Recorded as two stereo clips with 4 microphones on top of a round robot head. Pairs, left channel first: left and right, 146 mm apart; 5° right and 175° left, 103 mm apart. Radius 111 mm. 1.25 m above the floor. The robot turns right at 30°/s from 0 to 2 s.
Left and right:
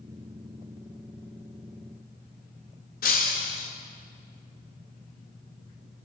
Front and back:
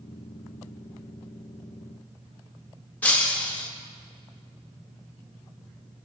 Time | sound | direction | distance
3.0 | breaking glass | 65° left | 0.7 m